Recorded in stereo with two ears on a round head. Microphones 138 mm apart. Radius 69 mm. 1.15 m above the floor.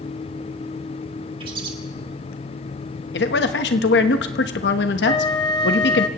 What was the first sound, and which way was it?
A bird, 35° right (ahead or behind).